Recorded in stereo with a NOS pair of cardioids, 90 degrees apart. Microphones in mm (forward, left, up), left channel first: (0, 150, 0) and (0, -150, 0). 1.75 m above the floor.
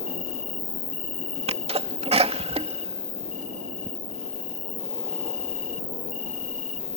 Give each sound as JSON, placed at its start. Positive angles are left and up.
{"t": 0.0, "sound": "an insect", "azimuth_deg": 45}
{"t": 1.5, "sound": "a sneeze", "azimuth_deg": -20}